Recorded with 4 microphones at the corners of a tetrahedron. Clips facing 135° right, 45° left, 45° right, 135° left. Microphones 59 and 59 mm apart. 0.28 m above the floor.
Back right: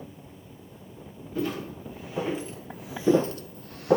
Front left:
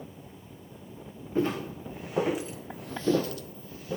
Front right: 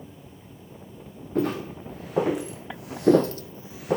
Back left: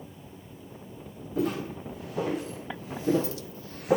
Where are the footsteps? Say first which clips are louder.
Front left 2 dB, front right 3 dB; 20° right, 2 m; by 4.0 s 140° right, 0.8 m.